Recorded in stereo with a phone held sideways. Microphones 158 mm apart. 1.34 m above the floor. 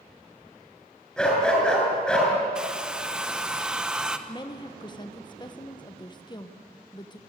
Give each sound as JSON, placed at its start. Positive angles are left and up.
{"t": 1.2, "sound": "a dog barking", "side_deg": 5, "distance_m": 6.5}
{"t": 2.5, "sound": "a hair dryer", "side_deg": -5, "distance_m": 1.0}
{"t": 4.3, "sound": "a woman speaking", "side_deg": 30, "distance_m": 1.2}